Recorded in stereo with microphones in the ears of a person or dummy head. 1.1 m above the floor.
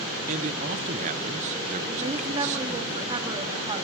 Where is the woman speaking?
25° right (ahead or behind), 1.5 m.